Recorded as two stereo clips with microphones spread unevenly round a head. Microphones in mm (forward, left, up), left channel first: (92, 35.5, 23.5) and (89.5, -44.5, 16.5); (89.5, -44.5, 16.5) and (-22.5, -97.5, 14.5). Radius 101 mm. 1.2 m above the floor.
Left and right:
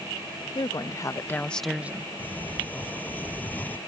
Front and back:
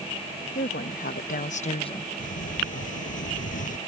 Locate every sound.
0.6 s a woman speaking: 50° left; by 2.1 s 35° right
2.2 s a sliding door: 20° left